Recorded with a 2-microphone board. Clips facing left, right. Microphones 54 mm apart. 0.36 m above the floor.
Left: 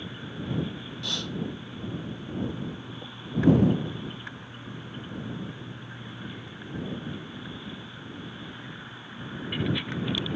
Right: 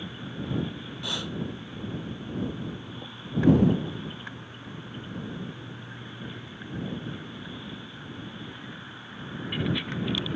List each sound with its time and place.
1.0 s breathing: 15° right (ahead or behind)